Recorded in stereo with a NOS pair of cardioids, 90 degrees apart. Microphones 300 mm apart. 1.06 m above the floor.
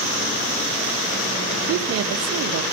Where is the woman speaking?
55° right, 0.8 m.